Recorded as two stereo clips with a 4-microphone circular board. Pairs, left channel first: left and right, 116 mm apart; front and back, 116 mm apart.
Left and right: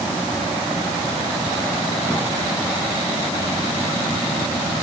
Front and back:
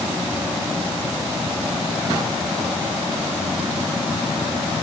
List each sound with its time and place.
Only background noise.